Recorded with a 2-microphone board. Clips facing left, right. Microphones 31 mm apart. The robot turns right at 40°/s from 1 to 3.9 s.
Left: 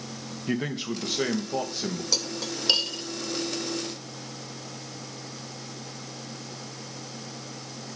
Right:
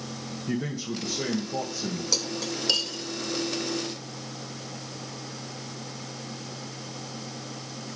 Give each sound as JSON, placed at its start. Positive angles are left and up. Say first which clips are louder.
{"t": 0.5, "sound": "a man speaking", "louder": "left 2 dB", "azimuth_deg": 80, "distance_m": 1.2}
{"t": 2.1, "sound": "cutlery clinking", "louder": "right 1 dB", "side_deg": 10, "distance_m": 0.8}